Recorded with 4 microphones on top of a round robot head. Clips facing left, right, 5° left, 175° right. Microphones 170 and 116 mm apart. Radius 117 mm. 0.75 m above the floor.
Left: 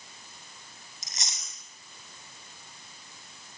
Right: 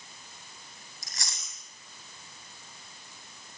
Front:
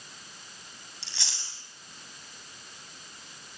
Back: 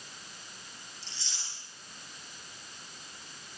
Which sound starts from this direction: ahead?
Chewing, at 1.0 s.